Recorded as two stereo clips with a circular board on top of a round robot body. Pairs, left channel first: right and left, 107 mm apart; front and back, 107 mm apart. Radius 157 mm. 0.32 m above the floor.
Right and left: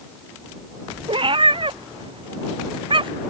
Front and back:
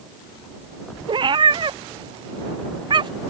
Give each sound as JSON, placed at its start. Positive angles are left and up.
{"t": 1.1, "sound": "a cat meowing", "azimuth_deg": 135}